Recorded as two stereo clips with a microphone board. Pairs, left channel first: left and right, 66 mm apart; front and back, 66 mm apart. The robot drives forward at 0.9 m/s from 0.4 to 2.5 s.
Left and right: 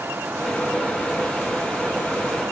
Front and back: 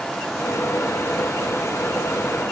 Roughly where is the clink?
No clink in this recording.